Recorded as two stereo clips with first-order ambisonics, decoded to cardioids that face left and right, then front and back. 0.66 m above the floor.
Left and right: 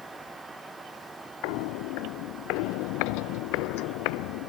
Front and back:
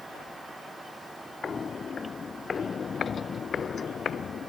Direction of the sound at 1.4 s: 70° left.